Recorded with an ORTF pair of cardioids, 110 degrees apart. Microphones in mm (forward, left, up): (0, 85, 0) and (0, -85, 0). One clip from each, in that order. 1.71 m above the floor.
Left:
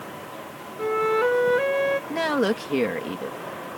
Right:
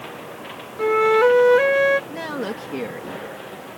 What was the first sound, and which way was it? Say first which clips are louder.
A flute: right 6 dB; 30° right.